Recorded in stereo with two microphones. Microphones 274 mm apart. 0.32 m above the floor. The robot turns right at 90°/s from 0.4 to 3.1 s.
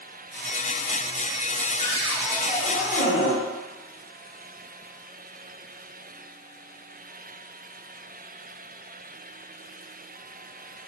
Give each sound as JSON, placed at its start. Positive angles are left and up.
{"t": 1.8, "sound": "a cupboard door", "azimuth_deg": -50, "distance_m": 0.9}